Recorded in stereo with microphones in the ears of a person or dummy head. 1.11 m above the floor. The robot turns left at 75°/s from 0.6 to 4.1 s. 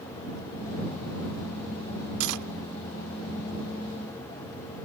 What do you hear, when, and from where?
2.2 s cutlery clinking: 75° right (ahead or behind); by 2.5 s 80° right